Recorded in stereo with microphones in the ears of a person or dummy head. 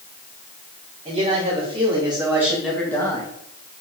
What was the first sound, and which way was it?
A man speaking, 40° right (ahead or behind).